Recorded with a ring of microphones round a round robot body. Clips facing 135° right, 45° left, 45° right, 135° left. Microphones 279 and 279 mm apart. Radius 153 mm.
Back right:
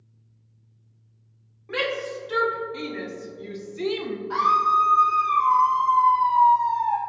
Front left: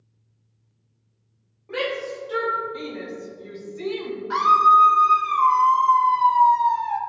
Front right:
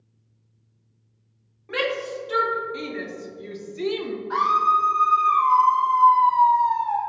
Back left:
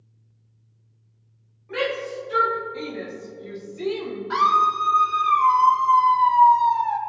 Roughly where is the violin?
I don't hear a violin.